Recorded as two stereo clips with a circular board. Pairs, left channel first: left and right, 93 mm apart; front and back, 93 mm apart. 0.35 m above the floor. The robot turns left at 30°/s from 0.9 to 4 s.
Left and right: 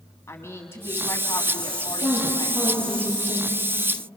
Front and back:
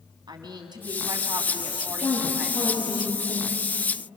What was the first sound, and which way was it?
A woman speaking, 150° left.